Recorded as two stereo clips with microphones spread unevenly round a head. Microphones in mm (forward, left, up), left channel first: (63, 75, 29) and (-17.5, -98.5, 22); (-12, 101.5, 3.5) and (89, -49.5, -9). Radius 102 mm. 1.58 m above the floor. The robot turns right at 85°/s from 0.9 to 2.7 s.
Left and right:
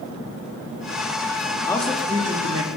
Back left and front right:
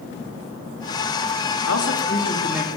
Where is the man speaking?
140° left, 4.5 m; by 2.8 s 135° right, 4.5 m.